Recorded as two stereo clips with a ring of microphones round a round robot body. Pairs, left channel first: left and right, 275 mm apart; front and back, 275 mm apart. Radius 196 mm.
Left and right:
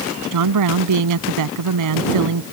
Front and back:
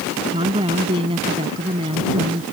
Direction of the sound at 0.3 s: 105° right.